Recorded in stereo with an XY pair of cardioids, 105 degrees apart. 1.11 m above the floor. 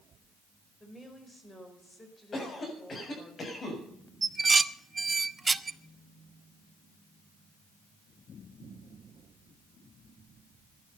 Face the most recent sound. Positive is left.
turn(degrees=-25)